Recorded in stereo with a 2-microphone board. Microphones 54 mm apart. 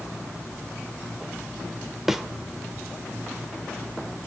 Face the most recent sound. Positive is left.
turn(degrees=-5)  # may be behind; listen again after turning